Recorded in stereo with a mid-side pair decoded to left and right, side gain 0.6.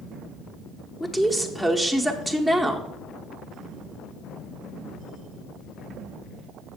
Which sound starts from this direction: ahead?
A woman speaking, at 1.0 s.